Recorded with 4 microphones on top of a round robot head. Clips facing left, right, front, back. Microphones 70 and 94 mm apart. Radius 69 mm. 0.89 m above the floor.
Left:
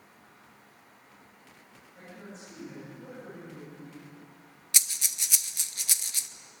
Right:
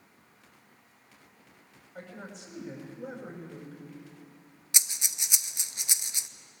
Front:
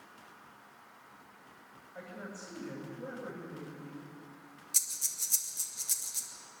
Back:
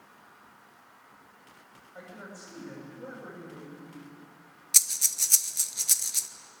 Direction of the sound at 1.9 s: 105° right.